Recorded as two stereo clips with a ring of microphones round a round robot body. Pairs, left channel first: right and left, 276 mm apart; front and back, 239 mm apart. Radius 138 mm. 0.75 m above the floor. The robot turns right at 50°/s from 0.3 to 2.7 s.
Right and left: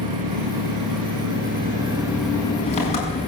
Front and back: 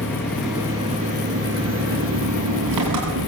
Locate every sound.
0.0 s an engine running: 80° left, 6 m; by 3.3 s 160° right, 6 m